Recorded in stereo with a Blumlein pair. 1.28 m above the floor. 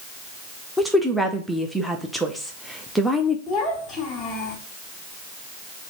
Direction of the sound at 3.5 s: 15° left.